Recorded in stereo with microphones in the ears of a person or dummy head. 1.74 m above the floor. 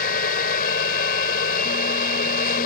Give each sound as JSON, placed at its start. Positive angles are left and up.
{"t": 0.0, "sound": "a fan", "side_deg": 55}